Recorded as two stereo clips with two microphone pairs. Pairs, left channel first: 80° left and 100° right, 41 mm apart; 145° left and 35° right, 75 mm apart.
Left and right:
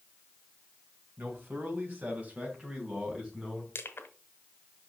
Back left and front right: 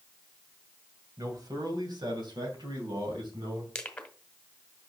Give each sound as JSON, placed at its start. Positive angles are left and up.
{"t": 1.2, "sound": "a man speaking", "azimuth_deg": -70, "distance_m": 3.0}
{"t": 3.8, "sound": "crushing", "azimuth_deg": 65, "distance_m": 1.6}